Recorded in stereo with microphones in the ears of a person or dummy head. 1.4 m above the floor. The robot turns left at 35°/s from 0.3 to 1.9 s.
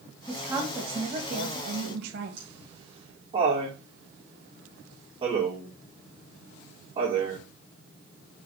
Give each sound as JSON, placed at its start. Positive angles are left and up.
{"t": 0.3, "sound": "a woman speaking", "azimuth_deg": -10, "distance_m": 1.9}
{"t": 2.4, "sound": "laughter", "side_deg": -30, "distance_m": 4.0}